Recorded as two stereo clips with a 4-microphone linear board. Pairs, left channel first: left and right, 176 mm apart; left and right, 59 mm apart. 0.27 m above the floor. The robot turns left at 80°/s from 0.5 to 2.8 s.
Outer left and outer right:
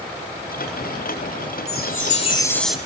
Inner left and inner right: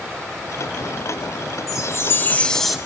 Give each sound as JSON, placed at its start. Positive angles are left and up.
{"t": 1.7, "sound": "a chime", "azimuth_deg": 85, "distance_m": 0.9}